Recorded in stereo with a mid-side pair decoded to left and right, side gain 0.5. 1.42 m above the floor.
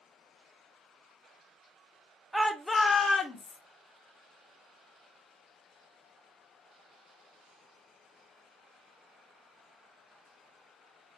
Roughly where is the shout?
Ahead.